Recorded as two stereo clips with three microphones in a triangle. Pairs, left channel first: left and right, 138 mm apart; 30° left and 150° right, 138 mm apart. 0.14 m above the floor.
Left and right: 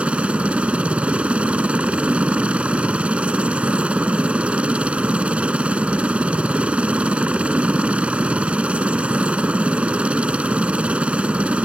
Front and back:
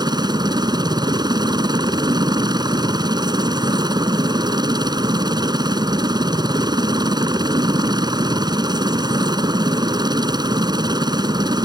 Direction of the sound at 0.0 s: 165° right.